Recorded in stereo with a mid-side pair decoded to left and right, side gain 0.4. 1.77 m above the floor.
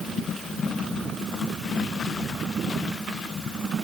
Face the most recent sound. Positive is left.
No sound to turn to.